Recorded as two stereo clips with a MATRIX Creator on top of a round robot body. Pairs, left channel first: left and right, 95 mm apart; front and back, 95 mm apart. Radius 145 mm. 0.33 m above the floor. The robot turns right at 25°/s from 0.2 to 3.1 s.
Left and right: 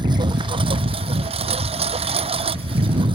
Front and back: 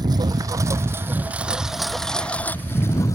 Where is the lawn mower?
130° right; by 3.2 s 60° right.